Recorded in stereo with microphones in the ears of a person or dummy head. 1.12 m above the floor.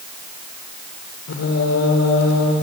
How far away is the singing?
About 3.5 m.